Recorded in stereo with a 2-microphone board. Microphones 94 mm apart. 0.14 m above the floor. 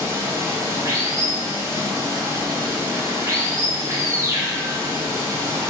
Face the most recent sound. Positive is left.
turn(degrees=-30)  # may be behind; listen again after turning